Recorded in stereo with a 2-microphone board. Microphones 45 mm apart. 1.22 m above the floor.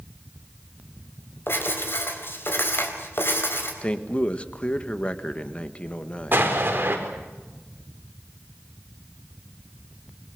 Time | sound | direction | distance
1.5 | writing | 55° left (ahead or behind) | 4.5 m
3.8 | a man speaking | 25° left (ahead or behind) | 1.6 m
6.3 | an explosion | 45° right (ahead or behind) | 4.5 m